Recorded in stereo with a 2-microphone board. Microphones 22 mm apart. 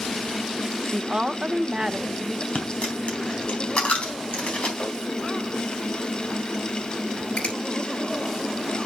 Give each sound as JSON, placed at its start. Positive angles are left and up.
{"t": 0.9, "sound": "a woman speaking", "side_deg": -35, "distance_m": 0.9}
{"t": 2.5, "sound": "a dropped coin", "side_deg": 65, "distance_m": 3.5}
{"t": 4.8, "sound": "tapping", "side_deg": 65, "distance_m": 7.0}
{"t": 7.4, "sound": "a finger snap", "side_deg": 85, "distance_m": 7.5}